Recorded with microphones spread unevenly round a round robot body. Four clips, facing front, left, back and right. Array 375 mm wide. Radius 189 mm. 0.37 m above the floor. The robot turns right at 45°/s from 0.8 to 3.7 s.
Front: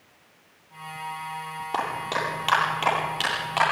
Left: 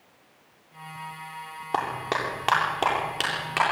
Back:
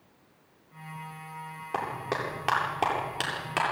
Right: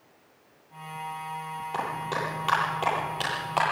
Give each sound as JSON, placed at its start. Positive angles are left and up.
{"t": 1.7, "sound": "a clap", "azimuth_deg": 70, "distance_m": 8.0}